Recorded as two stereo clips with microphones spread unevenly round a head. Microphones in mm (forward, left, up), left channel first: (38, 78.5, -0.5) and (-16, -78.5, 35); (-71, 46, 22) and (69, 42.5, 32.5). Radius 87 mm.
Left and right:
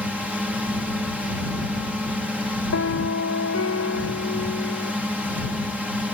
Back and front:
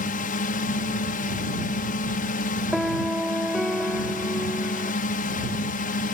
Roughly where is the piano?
Left.